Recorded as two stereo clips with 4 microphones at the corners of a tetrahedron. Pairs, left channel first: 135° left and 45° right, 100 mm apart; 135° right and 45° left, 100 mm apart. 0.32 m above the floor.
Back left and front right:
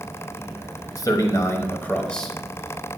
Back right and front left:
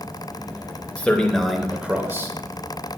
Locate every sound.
1.0 s a man speaking: 155° left, 1.2 m; by 2.4 s 45° left, 1.0 m